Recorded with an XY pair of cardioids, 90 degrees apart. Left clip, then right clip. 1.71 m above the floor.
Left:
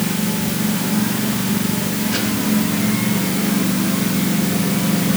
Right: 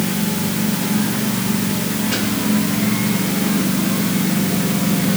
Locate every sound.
Only background noise.